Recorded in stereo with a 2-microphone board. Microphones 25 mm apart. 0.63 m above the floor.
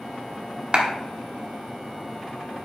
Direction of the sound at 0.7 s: 40° right (ahead or behind).